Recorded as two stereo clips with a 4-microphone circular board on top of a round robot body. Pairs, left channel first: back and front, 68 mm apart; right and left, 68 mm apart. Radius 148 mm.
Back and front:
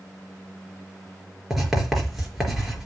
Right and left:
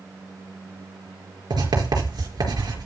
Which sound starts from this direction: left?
Writing, at 1.5 s.